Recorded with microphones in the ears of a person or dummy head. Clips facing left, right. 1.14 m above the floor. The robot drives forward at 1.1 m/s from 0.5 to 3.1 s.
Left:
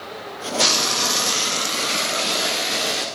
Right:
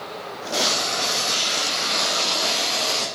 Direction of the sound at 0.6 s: 65° left (ahead or behind).